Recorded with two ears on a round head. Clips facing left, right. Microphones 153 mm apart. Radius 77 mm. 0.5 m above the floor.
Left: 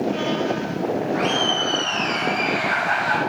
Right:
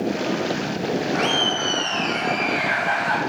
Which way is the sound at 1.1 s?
35° right (ahead or behind).